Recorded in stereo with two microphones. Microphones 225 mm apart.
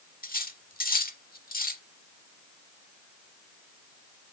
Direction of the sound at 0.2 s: 40° left (ahead or behind).